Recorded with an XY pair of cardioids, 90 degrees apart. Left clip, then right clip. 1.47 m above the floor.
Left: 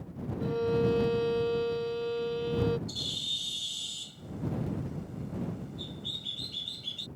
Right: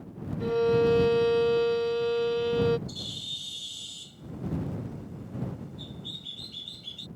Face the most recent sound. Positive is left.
turn(degrees=20)